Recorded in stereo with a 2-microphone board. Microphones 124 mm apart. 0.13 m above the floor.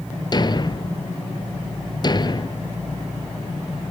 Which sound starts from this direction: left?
A thud, at 0.3 s.